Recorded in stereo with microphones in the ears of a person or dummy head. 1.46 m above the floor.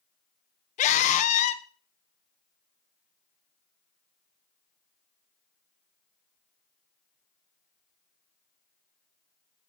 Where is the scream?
40° left (ahead or behind), 1.0 m.